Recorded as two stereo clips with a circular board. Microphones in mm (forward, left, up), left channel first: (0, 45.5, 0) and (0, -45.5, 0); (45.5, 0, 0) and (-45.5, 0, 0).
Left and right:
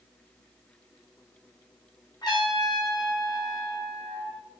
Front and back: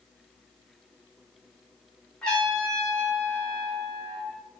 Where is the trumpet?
80° left, 1.1 m.